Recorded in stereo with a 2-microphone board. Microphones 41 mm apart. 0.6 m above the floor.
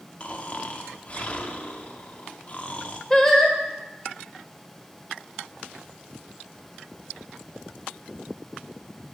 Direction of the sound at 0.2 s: 35° left (ahead or behind).